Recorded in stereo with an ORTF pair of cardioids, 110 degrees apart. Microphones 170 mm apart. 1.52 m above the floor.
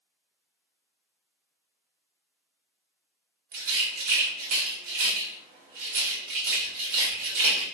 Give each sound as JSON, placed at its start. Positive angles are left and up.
{"t": 3.5, "sound": "a rattle", "azimuth_deg": -65, "distance_m": 1.6}